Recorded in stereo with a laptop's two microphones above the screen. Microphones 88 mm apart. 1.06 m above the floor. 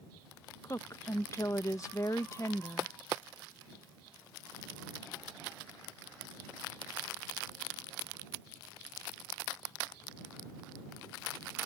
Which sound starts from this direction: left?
A woman speaking, at 0.6 s.